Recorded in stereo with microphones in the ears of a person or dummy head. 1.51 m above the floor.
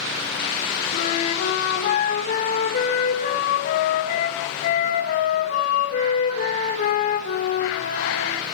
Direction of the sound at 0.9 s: 60° left (ahead or behind).